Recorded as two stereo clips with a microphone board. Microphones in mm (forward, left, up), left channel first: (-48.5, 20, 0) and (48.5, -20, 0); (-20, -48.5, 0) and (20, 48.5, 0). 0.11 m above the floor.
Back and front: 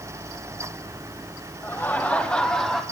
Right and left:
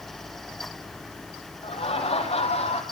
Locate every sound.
1.6 s laughter: 135° right, 3.5 m; by 2.8 s 115° right, 3.5 m